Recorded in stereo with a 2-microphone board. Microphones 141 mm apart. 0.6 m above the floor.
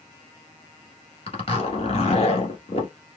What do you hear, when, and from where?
1.3 s a zipper: 45° left (ahead or behind), 1.5 m